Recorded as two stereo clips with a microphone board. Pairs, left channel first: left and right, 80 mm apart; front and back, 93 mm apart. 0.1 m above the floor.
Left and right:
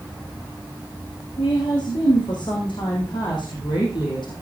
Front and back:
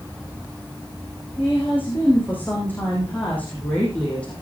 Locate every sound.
1.4 s a woman speaking: 70° left, 6.5 m; by 4.3 s 75° left, 5 m